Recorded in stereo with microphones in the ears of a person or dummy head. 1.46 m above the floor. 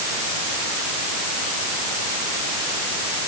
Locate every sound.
Only background noise.